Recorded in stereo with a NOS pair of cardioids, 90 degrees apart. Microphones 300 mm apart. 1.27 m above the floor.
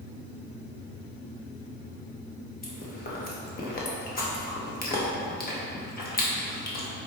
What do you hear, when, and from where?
2.6 s chewing: 30° left, 1.1 m